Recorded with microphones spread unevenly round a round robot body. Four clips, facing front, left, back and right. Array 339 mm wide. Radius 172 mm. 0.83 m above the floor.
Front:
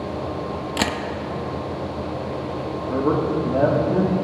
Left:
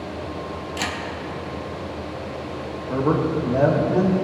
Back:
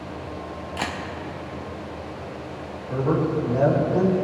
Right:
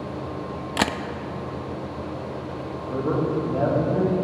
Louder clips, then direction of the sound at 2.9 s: Left 3 dB, front 2 dB; 35° left.